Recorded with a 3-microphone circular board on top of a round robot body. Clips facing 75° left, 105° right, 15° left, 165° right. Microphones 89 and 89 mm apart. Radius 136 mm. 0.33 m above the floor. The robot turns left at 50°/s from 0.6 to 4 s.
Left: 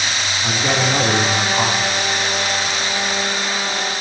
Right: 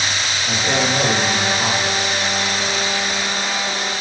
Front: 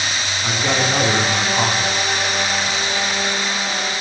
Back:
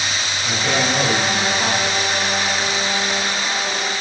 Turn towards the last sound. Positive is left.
turn(degrees=-90)